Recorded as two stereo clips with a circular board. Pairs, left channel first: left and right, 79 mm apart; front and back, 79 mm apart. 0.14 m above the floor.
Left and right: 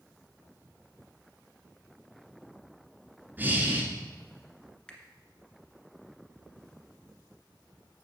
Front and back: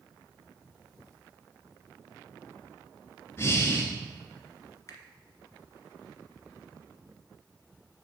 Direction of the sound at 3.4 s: 35° right.